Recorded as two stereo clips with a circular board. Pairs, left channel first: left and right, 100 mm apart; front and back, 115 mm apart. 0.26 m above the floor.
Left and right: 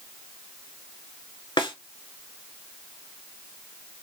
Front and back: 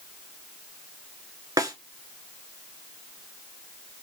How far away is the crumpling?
I don't hear crumpling.